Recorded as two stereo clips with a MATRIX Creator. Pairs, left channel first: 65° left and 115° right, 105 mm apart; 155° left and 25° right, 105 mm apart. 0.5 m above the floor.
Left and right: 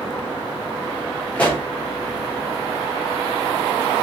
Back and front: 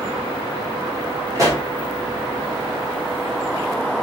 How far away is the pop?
About 1.3 m.